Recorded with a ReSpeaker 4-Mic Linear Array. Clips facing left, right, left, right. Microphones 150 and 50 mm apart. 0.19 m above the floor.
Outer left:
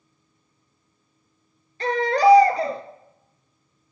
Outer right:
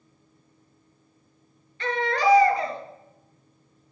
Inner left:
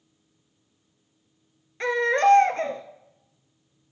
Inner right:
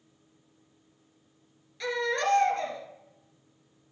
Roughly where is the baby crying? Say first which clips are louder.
Outer left 6 dB, inner left 8 dB; left.